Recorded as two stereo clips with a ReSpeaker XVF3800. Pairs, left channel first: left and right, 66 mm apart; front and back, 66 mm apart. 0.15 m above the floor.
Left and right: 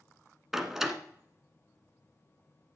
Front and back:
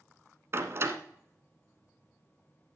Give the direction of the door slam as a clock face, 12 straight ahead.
6 o'clock.